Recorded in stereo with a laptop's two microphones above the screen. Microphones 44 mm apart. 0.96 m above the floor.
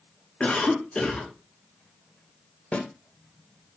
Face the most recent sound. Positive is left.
turn(degrees=30)  # may be behind; listen again after turning